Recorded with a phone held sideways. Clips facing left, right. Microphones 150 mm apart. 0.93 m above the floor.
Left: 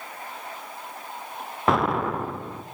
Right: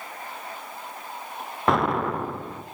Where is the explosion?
Centre (ahead or behind), 0.6 m.